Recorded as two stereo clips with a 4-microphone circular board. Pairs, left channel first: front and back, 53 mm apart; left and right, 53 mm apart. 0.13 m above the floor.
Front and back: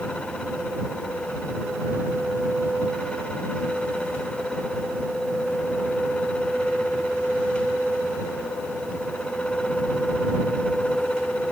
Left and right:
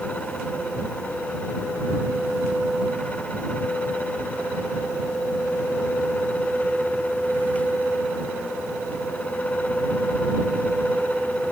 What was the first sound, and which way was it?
Only background noise.